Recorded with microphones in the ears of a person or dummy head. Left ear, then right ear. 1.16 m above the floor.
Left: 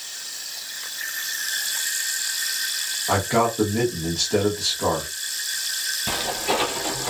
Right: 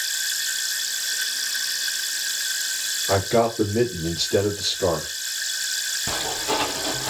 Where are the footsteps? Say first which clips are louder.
Left 2 dB; 30° left (ahead or behind), 1.5 m; by 7.1 s 10° left (ahead or behind), 1.1 m.